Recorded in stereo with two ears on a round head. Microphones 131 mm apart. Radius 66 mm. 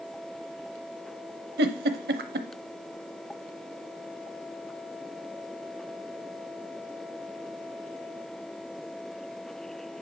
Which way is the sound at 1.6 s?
80° right.